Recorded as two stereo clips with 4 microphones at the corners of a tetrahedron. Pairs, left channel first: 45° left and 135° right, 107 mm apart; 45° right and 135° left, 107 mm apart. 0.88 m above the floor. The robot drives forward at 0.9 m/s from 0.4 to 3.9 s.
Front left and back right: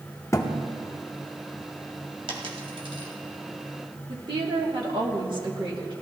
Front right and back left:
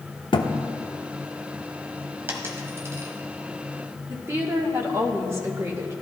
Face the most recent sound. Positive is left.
turn(degrees=-165)